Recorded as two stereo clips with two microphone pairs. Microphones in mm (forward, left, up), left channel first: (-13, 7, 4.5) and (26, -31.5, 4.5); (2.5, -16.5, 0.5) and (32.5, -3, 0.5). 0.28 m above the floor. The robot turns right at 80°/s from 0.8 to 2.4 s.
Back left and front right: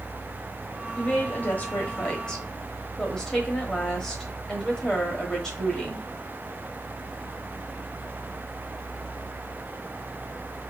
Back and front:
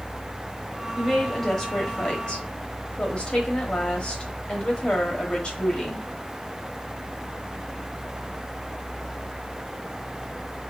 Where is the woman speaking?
85° left, 1.1 m; by 6.0 s 160° right, 1.1 m.